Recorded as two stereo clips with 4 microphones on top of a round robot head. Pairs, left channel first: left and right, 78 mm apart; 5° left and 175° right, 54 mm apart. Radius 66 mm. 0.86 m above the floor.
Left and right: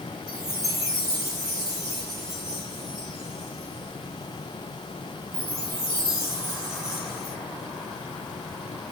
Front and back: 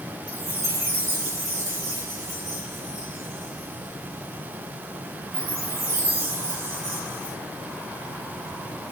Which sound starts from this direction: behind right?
A chime, at 0.3 s.